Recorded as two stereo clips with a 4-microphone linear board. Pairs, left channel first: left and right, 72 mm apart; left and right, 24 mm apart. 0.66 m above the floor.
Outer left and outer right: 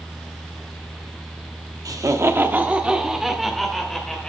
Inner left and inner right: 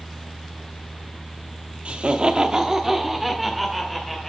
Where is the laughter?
55° right (ahead or behind), 0.9 m; by 4.3 s 5° left (ahead or behind), 2.5 m.